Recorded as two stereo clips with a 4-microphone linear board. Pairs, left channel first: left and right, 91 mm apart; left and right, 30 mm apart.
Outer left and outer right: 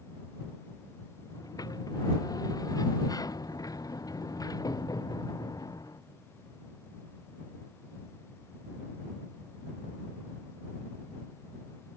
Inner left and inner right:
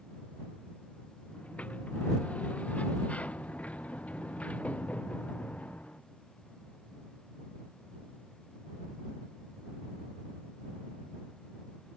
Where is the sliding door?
45° left (ahead or behind).